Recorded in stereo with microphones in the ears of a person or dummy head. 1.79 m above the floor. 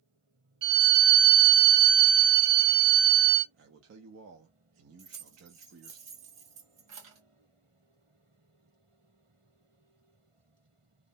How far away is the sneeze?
No sneeze in this recording.